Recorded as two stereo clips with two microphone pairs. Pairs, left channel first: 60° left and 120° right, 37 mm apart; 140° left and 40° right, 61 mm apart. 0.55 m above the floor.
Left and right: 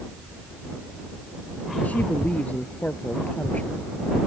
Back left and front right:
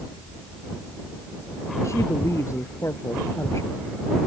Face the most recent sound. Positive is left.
turn(degrees=105)